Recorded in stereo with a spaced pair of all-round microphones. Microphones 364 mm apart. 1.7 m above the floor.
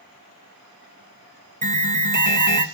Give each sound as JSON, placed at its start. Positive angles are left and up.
{"t": 1.6, "sound": "an alarm", "side_deg": -55, "distance_m": 2.0}